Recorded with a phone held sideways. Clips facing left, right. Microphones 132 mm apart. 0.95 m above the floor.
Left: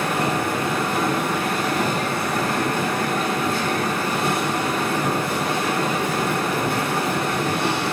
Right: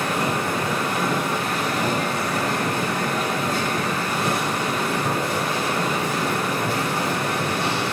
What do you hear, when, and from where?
0.0 s a machine running: 55° left (ahead or behind), 1.8 m